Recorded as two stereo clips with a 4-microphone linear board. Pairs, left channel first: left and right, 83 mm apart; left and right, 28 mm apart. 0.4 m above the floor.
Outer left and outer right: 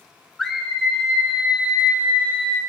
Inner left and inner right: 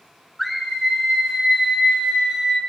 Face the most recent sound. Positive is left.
turn(degrees=-25)  # may be behind; listen again after turning